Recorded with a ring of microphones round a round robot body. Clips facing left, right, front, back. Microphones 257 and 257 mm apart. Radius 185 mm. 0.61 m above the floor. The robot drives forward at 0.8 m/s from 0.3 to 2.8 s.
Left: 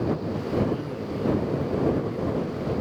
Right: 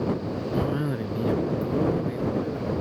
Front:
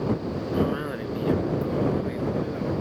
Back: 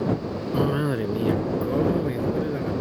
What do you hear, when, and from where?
0.5 s a cough: 140° right; by 2.7 s 150° right